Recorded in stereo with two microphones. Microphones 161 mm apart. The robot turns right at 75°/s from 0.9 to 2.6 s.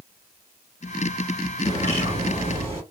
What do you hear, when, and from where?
1.6 s a bird: 140° right, 2.0 m; by 2.8 s 70° right, 2.0 m